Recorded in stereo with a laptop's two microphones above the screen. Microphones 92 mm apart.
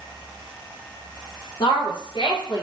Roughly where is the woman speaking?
Left.